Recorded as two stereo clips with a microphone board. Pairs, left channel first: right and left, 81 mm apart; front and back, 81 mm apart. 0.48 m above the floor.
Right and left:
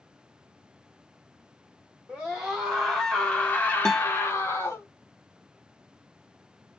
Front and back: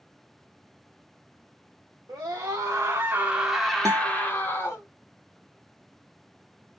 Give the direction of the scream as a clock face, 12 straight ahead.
6 o'clock.